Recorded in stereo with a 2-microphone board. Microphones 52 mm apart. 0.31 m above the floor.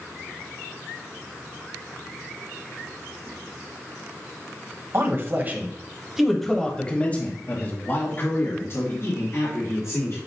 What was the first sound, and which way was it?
A man speaking, 45° right (ahead or behind).